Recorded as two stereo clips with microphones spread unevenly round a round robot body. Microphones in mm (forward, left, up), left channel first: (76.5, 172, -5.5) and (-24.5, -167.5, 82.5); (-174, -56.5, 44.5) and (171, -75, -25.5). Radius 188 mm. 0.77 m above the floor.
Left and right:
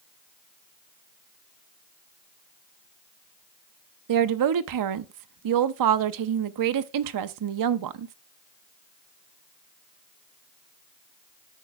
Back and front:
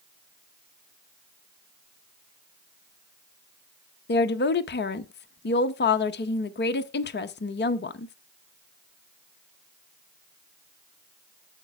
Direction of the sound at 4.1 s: 120° right.